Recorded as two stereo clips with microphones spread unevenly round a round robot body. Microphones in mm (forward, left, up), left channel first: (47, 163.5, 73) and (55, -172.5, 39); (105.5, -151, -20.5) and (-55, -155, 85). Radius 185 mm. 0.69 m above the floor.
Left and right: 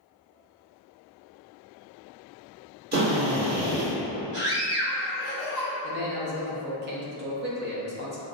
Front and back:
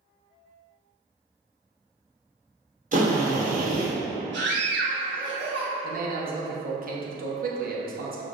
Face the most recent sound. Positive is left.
turn(degrees=-125)